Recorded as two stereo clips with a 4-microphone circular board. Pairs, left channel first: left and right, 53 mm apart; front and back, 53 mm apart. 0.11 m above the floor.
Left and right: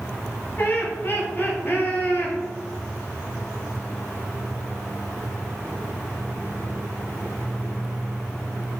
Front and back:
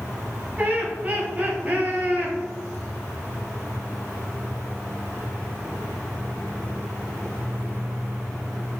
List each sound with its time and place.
0.6 s laughter: 130° left, 2.0 m